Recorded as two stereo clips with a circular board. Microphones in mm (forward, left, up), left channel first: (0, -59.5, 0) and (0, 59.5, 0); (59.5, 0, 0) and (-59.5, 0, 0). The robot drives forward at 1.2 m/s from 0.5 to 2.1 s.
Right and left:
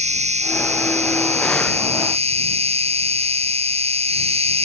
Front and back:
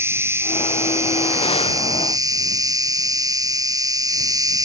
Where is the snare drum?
No snare drum in this recording.